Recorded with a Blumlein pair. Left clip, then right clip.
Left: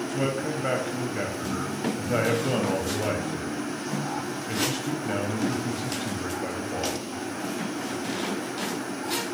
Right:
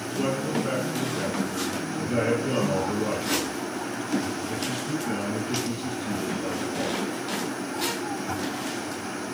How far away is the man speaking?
About 0.8 m.